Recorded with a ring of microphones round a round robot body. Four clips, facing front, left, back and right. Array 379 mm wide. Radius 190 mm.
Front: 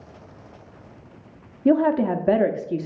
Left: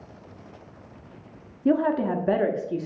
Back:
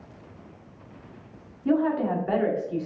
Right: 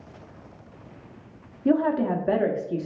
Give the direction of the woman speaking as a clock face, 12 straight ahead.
12 o'clock.